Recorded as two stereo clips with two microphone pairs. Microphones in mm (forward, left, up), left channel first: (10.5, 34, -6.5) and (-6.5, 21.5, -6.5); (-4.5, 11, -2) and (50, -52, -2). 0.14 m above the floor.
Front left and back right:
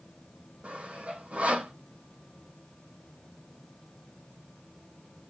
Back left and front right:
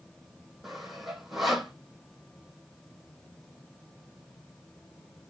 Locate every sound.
0.6 s sawing: 135° right, 1.2 m